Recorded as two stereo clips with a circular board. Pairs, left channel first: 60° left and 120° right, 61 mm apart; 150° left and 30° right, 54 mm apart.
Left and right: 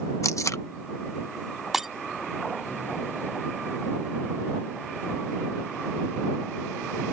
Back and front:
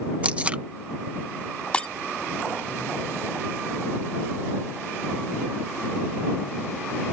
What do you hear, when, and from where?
0.2 s tape being pulled: 30° left
1.7 s breaking glass: 160° left